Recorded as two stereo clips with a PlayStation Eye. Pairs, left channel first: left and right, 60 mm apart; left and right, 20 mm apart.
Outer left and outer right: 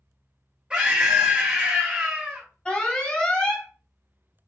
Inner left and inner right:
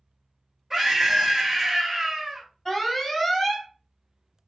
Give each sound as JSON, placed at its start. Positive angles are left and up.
{"t": 0.7, "sound": "a scream", "side_deg": -15, "distance_m": 1.6}
{"t": 2.6, "sound": "an alarm", "side_deg": 15, "distance_m": 1.1}